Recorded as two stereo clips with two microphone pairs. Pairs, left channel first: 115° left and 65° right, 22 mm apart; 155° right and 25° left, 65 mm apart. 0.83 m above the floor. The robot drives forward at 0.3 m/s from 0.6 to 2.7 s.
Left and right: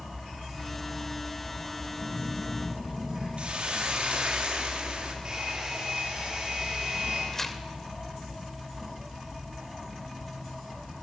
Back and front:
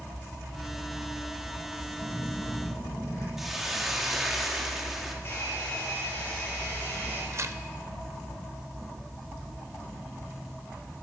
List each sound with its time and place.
2.0 s a phone buzzing: 115° right, 7 m; by 3.3 s 120° right, 7 m
3.4 s a hiss: 65° right, 1.9 m
5.2 s a hair dryer: 105° right, 5.5 m
7.3 s tearing paper: 40° left, 0.7 m